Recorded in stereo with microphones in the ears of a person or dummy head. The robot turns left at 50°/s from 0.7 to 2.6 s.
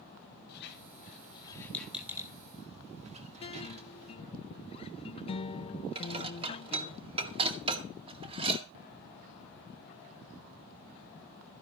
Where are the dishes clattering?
30° right (ahead or behind), 1.9 m.